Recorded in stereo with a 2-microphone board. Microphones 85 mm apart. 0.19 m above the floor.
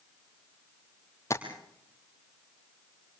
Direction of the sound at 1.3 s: 30° left (ahead or behind).